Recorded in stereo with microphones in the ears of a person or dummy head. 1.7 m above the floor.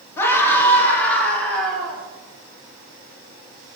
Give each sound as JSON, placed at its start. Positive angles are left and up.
{"t": 0.2, "sound": "a scream", "side_deg": 15, "distance_m": 3.0}